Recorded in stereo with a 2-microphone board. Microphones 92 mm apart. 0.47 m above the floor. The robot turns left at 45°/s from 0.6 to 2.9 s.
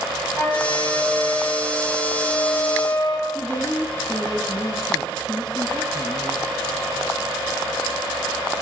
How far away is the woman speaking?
About 4 m.